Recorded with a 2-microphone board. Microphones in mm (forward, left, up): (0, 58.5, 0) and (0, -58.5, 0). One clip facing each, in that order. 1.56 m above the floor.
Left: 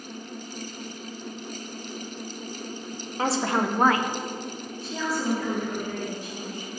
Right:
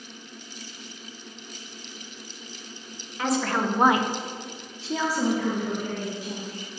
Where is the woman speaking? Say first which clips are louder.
Even; 35° left (ahead or behind), 1.0 m; by 6.7 s 80° right, 3 m.